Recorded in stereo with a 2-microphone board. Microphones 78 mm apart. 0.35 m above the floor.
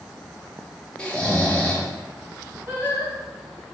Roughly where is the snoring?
Centre.